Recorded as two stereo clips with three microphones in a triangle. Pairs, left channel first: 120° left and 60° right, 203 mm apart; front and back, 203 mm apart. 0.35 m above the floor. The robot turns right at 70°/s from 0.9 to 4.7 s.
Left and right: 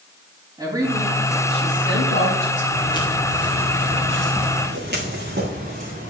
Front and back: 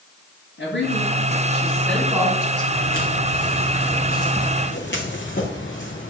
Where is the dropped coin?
No dropped coin in this recording.